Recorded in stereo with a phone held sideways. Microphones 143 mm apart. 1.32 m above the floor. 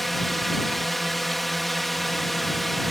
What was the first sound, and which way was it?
A drone, centre (ahead or behind).